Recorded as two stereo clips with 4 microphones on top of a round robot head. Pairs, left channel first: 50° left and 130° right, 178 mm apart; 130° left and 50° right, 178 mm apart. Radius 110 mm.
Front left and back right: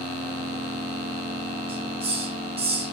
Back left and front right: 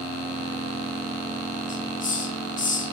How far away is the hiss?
About 3 m.